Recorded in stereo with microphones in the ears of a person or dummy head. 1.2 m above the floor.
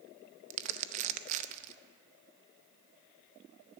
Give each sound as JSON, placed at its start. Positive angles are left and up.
{"t": 0.5, "sound": "crumpling", "side_deg": -45, "distance_m": 0.6}